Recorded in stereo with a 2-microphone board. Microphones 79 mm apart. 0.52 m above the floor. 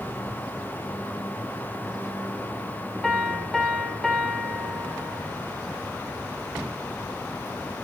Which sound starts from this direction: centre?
A piano, at 3.0 s.